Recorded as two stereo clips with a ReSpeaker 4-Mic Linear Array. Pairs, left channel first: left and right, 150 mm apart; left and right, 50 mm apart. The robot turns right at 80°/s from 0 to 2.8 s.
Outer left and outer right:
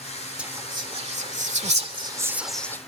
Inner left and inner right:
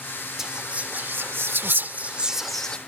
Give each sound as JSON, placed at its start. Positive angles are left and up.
{"t": 0.4, "sound": "whispering", "side_deg": -5}